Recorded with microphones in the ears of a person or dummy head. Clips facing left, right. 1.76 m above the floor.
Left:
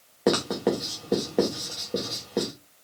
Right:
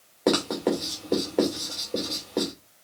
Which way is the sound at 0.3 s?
10° left (ahead or behind).